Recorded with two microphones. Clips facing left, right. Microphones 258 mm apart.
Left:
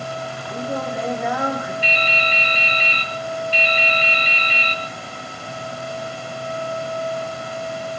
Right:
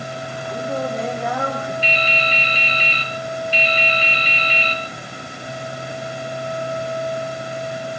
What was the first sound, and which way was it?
Singing, 5° left (ahead or behind).